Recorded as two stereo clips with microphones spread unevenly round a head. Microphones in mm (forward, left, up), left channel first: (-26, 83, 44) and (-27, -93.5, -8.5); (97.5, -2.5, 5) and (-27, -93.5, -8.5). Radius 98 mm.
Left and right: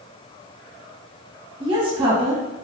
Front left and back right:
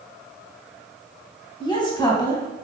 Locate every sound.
1.6 s a woman speaking: 25° right, 2 m